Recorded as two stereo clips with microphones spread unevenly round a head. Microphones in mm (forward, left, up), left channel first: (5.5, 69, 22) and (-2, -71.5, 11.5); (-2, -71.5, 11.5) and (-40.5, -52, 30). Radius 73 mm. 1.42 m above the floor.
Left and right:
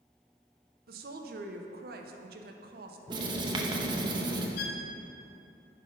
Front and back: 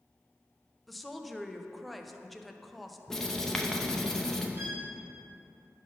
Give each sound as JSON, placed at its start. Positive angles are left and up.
{"t": 0.9, "sound": "a woman speaking", "azimuth_deg": -120, "distance_m": 0.8}
{"t": 3.1, "sound": "writing", "azimuth_deg": -140, "distance_m": 0.7}
{"t": 4.6, "sound": "a violin", "azimuth_deg": 90, "distance_m": 0.9}